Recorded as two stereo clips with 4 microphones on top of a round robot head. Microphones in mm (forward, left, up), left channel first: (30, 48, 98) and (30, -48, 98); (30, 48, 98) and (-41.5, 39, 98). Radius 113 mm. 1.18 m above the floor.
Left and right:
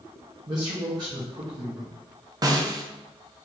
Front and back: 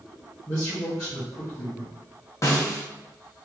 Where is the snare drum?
35° right, 0.8 m.